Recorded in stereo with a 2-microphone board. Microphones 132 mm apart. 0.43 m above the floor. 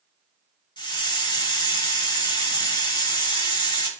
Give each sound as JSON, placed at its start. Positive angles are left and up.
{"t": 0.8, "sound": "a hiss", "side_deg": 35, "distance_m": 0.7}